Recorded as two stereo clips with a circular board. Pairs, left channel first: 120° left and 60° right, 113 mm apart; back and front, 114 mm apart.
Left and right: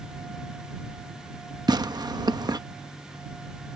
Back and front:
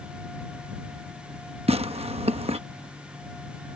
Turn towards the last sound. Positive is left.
turn(degrees=-10)